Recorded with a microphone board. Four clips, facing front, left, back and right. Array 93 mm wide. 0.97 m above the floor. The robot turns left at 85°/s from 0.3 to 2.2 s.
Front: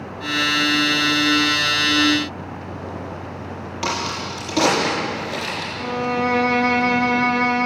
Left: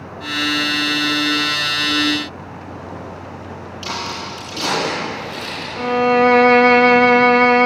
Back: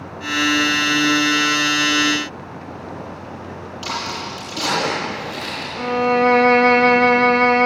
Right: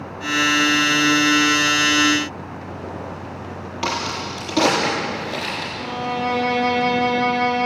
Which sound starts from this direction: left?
A violin, at 5.8 s.